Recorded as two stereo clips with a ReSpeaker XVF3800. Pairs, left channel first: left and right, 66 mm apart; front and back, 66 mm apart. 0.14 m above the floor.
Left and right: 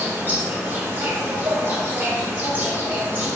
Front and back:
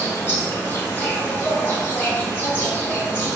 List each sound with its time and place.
0.0 s an insect: 40° right, 0.7 m